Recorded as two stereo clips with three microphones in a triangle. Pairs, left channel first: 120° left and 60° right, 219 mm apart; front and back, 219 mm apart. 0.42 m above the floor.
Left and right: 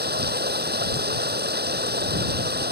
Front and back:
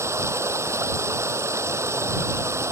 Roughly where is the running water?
Right.